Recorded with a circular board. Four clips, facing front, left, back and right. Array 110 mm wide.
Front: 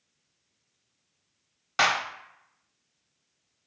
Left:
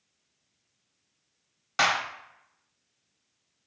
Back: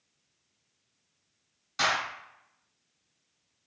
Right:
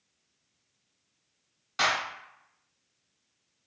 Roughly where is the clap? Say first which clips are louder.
Left 3 dB, front 4 dB; ahead left.